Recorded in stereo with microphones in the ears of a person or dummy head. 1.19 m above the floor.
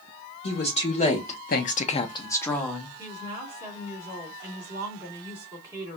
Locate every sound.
0.4 s a woman speaking: 35° left (ahead or behind), 1.5 m; by 3.0 s 10° right (ahead or behind), 1.2 m
3.0 s a woman speaking: 30° right (ahead or behind), 2 m